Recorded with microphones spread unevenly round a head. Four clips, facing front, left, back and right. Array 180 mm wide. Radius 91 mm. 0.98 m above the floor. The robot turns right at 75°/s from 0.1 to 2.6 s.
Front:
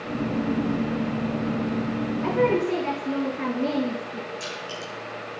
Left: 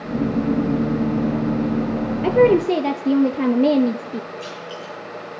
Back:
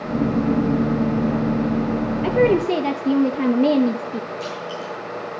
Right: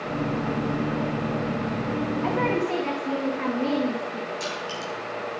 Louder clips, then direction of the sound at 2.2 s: Left 12 dB, back 5 dB; 125° left.